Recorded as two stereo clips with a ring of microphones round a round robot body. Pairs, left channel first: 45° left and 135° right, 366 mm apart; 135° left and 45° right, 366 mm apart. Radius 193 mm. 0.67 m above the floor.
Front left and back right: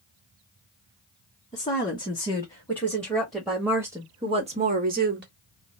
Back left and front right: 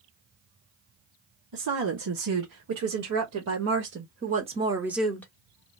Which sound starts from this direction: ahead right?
A woman speaking, at 1.5 s.